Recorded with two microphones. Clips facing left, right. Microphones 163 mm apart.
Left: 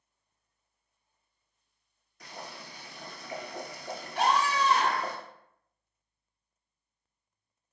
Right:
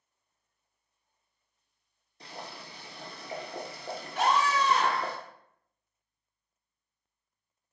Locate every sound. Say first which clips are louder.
2.2 s boiling: right 1 dB; 35° right (ahead or behind), 0.7 m
4.2 s a scream: even; 40° left (ahead or behind), 1.9 m